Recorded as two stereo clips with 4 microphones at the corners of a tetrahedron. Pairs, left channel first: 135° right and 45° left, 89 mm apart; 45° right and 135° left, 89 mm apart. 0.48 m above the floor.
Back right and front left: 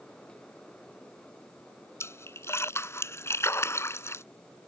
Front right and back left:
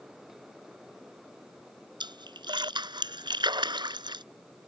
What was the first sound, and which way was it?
A splash, 165° left.